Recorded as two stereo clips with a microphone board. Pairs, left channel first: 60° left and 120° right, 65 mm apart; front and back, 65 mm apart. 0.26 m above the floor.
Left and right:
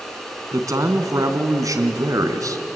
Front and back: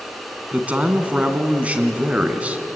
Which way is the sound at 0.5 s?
115° right.